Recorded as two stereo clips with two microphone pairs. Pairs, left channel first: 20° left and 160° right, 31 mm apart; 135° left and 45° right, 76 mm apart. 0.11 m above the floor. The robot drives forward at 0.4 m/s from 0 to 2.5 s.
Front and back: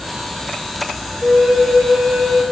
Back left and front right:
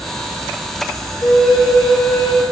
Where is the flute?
150° left, 0.7 m; by 2.4 s 165° left, 1.1 m.